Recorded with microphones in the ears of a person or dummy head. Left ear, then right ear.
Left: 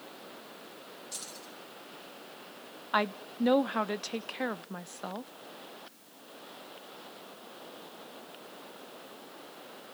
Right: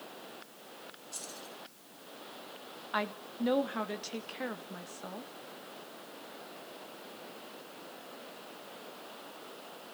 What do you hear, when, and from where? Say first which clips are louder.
1.1 s keys jangling: left 1 dB; 40° left (ahead or behind), 5 m
2.9 s a woman speaking: left 5 dB; 30° left (ahead or behind), 0.5 m